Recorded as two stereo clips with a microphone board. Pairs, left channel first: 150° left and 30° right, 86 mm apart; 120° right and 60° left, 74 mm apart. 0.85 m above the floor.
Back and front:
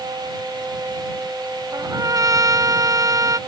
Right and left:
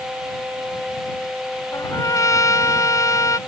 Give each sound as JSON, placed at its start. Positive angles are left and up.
{"t": 1.7, "sound": "a trumpet", "azimuth_deg": -75}